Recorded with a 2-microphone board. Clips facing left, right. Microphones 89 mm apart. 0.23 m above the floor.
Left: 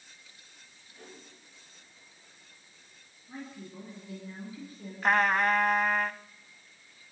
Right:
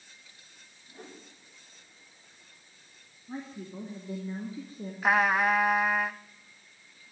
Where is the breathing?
I don't hear breathing.